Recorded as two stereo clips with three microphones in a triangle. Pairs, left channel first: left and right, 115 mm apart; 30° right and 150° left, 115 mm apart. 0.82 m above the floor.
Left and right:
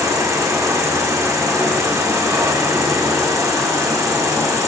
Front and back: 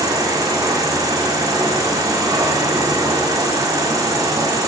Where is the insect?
150° right, 1.6 m.